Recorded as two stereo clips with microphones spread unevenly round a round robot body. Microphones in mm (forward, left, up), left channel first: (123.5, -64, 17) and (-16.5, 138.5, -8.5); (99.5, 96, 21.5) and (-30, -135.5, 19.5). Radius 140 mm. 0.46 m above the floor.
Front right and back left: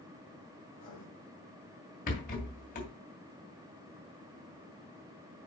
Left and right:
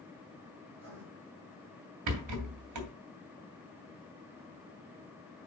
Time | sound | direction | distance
0.7 | writing | 85° right | 4.5 m
2.1 | a rattle | 120° right | 2.5 m